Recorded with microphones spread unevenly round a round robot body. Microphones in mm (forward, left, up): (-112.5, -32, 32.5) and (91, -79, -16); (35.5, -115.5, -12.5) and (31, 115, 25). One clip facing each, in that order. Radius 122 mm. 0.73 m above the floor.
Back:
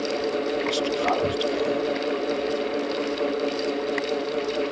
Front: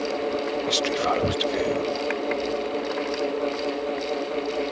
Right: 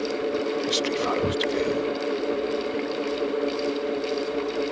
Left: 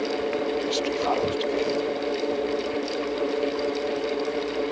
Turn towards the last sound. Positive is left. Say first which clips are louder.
# back 1 dB, even
turn(degrees=-45)